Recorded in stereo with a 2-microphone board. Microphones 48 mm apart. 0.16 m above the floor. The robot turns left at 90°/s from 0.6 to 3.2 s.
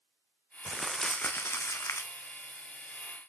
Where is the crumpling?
160° right, 1.7 m; by 2.1 s 65° left, 1.7 m.